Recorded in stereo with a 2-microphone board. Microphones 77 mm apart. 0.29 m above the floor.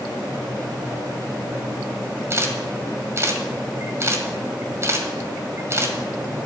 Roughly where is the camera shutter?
Right.